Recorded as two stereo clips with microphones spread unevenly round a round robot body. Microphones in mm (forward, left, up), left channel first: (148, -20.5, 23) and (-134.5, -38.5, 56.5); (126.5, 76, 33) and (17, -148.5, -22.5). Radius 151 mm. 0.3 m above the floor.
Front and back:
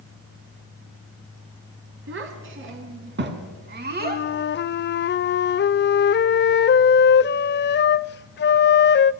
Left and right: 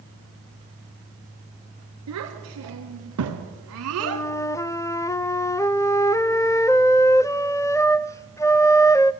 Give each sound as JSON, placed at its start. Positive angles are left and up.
{"t": 2.1, "sound": "a child speaking", "azimuth_deg": -130, "distance_m": 4.0}
{"t": 4.0, "sound": "a flute", "azimuth_deg": -25, "distance_m": 0.5}